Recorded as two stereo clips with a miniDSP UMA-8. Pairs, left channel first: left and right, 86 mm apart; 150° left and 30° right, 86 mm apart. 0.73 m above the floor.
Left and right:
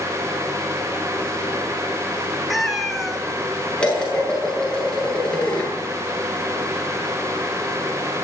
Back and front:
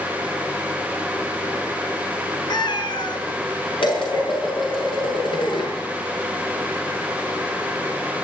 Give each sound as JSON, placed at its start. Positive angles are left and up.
{"t": 2.5, "sound": "a cat meowing", "azimuth_deg": 180, "distance_m": 2.5}
{"t": 3.8, "sound": "dishes clattering", "azimuth_deg": 170, "distance_m": 8.5}